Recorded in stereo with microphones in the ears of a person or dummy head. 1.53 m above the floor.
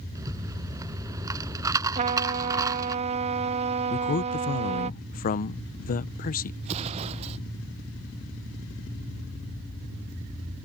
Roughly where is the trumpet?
Right.